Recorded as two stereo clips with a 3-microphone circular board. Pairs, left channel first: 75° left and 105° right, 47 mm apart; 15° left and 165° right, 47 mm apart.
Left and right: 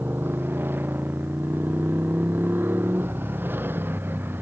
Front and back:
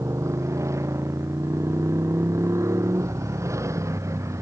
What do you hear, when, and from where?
0.0 s a motorcycle: 150° right